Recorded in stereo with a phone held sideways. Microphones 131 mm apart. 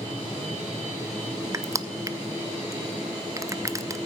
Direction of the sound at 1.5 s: 25° right (ahead or behind).